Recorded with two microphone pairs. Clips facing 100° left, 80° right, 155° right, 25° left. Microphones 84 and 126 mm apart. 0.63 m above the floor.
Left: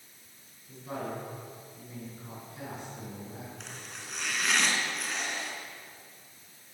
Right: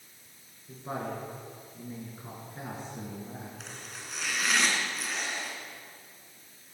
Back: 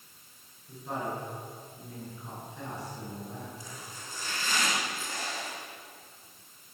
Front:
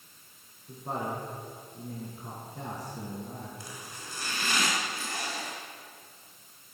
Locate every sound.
0.7 s a woman speaking: 25° right, 7.5 m
3.6 s chopping: 10° left, 3 m